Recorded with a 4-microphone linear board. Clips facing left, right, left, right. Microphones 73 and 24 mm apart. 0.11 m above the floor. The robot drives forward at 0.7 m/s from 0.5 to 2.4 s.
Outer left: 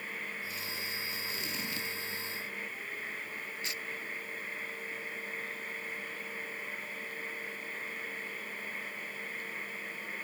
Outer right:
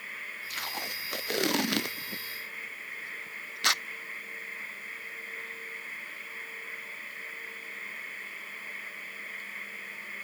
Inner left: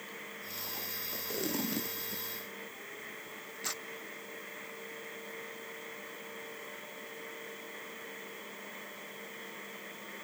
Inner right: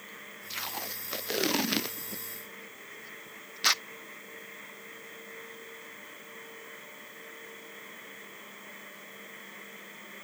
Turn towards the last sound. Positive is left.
turn(degrees=-75)  # may be behind; listen again after turning